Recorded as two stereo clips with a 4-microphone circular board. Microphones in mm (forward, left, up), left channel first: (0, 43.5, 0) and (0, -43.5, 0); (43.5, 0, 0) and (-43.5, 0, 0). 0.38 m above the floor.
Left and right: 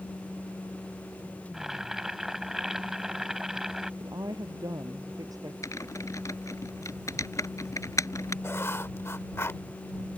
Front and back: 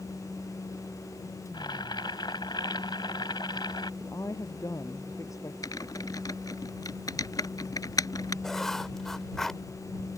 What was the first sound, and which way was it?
Boiling, 5° right.